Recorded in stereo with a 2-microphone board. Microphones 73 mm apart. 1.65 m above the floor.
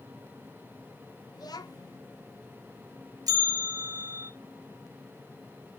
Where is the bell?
60° right (ahead or behind), 2 m.